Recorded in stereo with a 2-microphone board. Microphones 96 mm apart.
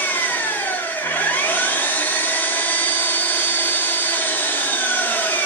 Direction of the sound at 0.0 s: 20° left (ahead or behind).